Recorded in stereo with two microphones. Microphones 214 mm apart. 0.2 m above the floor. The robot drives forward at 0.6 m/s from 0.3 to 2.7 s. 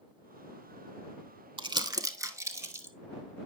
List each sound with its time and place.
1.6 s crumpling: 25° right (ahead or behind), 0.6 m; by 2.9 s 10° right (ahead or behind), 1.2 m